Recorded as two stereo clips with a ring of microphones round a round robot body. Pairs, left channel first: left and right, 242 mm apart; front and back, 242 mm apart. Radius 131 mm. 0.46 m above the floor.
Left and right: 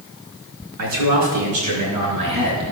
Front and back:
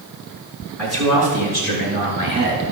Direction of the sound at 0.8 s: 90° right.